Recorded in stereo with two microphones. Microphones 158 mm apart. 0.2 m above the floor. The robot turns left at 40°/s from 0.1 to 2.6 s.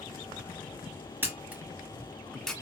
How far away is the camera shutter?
About 1.3 m.